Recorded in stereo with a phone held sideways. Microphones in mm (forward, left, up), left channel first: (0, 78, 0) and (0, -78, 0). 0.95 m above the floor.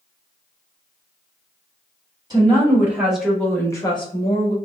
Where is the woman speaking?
25° right (ahead or behind), 1.5 m; by 4.5 s 50° left (ahead or behind), 1.1 m.